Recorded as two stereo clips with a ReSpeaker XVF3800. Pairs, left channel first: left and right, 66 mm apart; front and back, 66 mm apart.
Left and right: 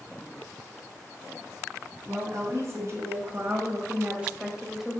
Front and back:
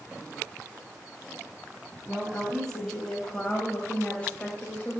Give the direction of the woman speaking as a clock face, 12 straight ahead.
3 o'clock.